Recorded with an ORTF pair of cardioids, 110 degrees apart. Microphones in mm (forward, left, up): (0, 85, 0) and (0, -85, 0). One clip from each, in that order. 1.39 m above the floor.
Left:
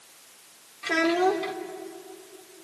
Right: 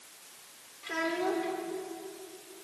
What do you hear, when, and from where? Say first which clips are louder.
0.8 s a child speaking: left 9 dB; 60° left, 3 m